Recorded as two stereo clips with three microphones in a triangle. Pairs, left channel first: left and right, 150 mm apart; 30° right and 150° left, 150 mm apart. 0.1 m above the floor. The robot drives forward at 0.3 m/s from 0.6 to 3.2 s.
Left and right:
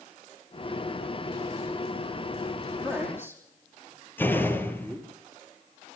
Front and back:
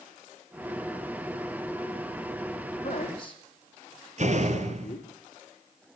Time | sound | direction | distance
2.8 | a man speaking | 15° left | 5 m
4.2 | a door slam | 165° left | 1.5 m